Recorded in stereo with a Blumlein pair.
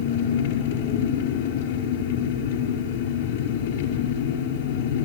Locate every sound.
0.0 s an engine running: 55° left, 5.5 m